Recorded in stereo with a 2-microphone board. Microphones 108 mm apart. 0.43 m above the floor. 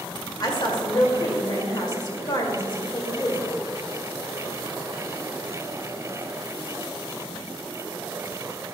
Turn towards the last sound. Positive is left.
turn(degrees=45)  # may be behind; listen again after turning